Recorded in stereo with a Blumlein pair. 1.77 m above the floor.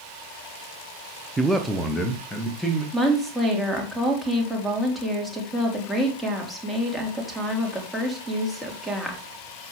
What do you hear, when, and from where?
1.4 s a man speaking: 15° right, 0.7 m; by 2.8 s 10° left, 2 m
2.9 s a woman speaking: 5° right, 3 m